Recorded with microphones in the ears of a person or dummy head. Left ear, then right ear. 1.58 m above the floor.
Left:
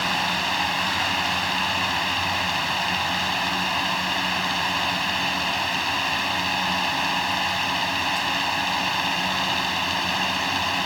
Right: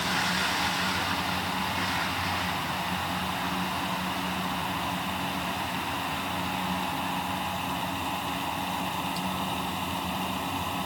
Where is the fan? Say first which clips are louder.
Left 4 dB; 70° left (ahead or behind).